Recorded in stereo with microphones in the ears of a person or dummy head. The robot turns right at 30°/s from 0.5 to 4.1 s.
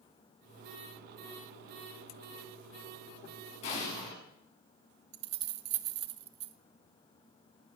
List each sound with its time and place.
3.6 s an explosion: 40° left (ahead or behind), 6.5 m; by 4.2 s 55° left (ahead or behind), 6.5 m
5.1 s keys jangling: 30° right (ahead or behind), 0.6 m